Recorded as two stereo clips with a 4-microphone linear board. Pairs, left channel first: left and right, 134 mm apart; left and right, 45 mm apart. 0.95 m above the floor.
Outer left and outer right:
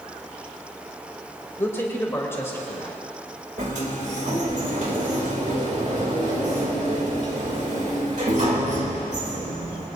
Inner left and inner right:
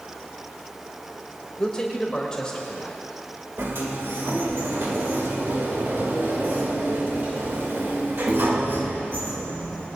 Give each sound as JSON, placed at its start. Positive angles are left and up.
{"t": 1.6, "sound": "a man speaking", "side_deg": 20, "distance_m": 3.0}
{"t": 3.6, "sound": "a sliding door", "side_deg": -70, "distance_m": 3.0}